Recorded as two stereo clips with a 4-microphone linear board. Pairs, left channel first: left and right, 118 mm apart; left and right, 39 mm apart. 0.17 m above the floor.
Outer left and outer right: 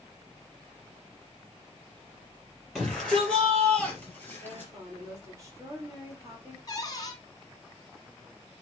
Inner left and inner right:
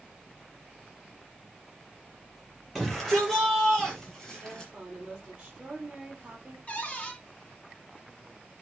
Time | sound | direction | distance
2.8 | a shout | 5° right (ahead or behind) | 4.5 m
4.4 | a woman speaking | 25° right (ahead or behind) | 5 m
6.7 | a cupboard door | 30° left (ahead or behind) | 1.9 m